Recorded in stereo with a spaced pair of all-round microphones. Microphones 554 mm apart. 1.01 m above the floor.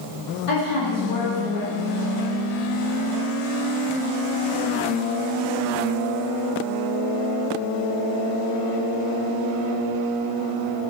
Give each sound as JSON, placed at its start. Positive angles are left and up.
{"t": 0.5, "sound": "a woman speaking", "side_deg": 75, "distance_m": 1.7}